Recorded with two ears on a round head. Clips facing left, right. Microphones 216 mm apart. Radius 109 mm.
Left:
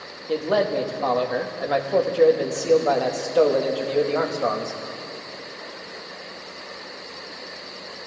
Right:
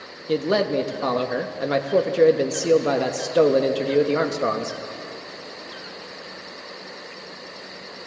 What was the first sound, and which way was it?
A man speaking, 25° right (ahead or behind).